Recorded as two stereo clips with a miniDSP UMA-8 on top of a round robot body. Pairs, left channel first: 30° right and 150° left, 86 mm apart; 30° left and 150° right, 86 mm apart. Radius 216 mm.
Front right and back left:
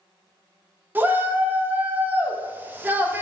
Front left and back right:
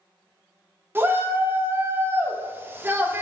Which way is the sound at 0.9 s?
175° right.